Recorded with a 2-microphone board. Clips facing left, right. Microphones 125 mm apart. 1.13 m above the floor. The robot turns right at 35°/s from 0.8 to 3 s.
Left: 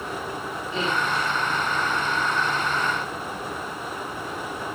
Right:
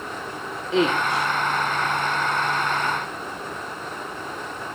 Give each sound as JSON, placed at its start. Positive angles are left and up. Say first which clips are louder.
{"t": 0.7, "sound": "a woman speaking", "louder": "right 6 dB", "side_deg": -85, "distance_m": 2.0}